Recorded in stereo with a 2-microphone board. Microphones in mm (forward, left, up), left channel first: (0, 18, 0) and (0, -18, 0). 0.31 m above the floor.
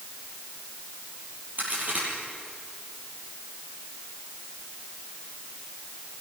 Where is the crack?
50° right (ahead or behind), 7.5 m.